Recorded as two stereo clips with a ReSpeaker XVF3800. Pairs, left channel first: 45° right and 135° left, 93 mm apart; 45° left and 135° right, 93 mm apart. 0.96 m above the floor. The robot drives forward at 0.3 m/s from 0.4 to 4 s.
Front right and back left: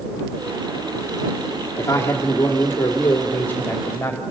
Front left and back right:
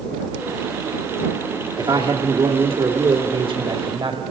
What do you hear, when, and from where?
1.8 s a man speaking: 105° right, 2 m; by 4.2 s 120° right, 2.5 m